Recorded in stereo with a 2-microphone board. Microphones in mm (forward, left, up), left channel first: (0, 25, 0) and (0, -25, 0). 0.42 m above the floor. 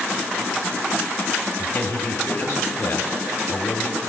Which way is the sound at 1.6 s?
60° left (ahead or behind).